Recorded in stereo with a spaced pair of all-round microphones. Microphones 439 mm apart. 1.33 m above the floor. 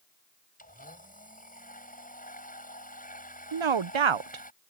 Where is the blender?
20° left (ahead or behind).